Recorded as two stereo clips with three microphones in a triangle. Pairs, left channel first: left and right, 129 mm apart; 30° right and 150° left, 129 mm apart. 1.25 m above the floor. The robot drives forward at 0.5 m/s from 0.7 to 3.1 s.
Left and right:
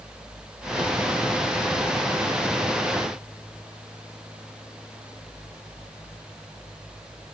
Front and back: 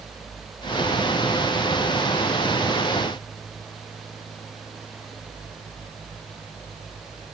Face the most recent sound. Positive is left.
No sound to turn to.